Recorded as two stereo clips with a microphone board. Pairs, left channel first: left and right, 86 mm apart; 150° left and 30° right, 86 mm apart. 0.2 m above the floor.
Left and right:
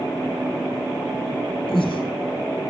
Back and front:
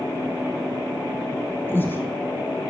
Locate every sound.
1.7 s breathing: 85° left, 2.5 m